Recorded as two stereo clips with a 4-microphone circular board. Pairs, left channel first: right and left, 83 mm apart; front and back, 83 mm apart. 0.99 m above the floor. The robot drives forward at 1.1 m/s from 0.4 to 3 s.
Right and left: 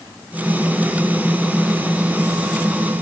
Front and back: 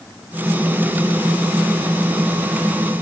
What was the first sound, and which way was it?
Only background noise.